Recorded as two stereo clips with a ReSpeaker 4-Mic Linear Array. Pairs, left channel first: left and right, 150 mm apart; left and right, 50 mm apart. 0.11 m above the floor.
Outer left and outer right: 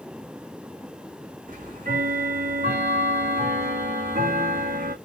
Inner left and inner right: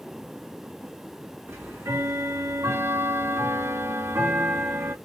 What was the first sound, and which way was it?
Ticking, 65° right (ahead or behind).